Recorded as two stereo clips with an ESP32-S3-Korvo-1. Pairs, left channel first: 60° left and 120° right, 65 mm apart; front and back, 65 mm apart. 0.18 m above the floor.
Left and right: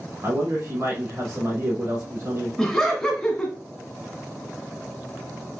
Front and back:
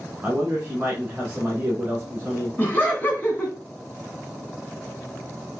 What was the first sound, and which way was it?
A man speaking, 130° right.